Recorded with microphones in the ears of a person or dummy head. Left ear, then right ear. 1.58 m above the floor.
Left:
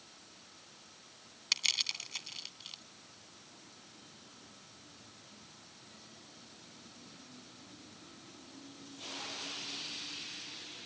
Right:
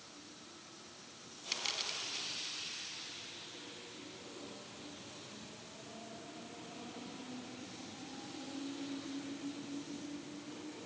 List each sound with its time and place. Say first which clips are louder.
1.5 s crushing: left 6 dB; 30° left (ahead or behind)